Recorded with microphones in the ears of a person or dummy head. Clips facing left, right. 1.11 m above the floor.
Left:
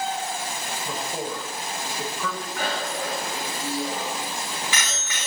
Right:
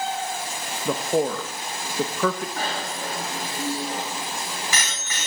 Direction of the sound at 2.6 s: 35° right (ahead or behind).